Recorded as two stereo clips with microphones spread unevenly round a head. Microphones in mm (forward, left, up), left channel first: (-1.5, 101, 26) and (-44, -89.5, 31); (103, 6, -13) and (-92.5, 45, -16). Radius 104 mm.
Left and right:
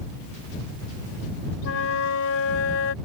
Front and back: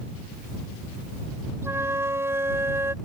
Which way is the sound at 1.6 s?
90° left.